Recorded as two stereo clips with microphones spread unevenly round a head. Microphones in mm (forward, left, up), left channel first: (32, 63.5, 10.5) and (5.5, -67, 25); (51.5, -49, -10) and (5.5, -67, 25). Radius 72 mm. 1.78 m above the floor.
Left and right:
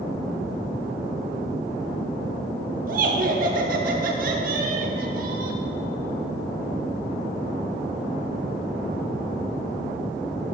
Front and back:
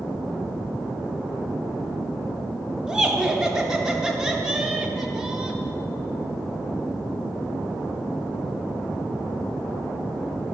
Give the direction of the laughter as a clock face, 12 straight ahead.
3 o'clock.